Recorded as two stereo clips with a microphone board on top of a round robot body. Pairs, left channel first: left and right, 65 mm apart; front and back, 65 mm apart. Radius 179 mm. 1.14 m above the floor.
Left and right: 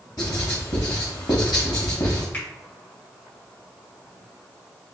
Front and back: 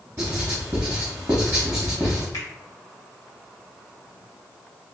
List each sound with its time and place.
0.2 s writing: 115° left, 0.9 m
2.3 s a finger snap: 30° left, 1.8 m